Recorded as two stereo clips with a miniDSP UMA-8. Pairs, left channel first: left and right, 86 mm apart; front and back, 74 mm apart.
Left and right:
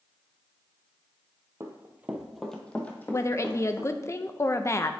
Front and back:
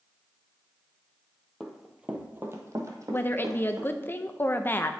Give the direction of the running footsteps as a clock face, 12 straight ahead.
3 o'clock.